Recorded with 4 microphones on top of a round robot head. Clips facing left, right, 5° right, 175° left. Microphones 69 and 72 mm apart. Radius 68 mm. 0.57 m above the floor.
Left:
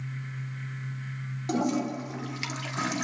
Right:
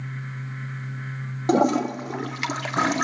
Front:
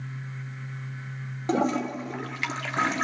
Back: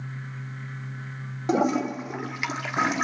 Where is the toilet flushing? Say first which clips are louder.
Right 8 dB, back 2 dB; 110° right, 1.7 m.